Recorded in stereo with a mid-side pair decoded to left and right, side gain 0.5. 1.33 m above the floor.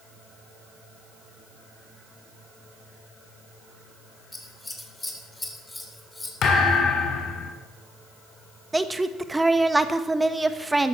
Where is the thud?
60° left, 3 m.